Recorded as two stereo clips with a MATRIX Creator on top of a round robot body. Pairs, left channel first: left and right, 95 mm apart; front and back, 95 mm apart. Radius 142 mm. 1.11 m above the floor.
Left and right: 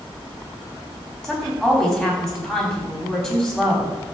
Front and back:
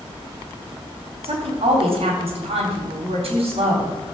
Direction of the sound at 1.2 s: 175° left.